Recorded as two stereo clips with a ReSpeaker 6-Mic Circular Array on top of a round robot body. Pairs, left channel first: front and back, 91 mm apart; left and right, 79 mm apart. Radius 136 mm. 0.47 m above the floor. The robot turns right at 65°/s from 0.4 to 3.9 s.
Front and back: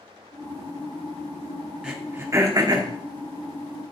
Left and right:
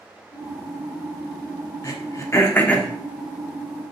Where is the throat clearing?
100° left, 1.4 m; by 2.9 s 170° left, 1.4 m.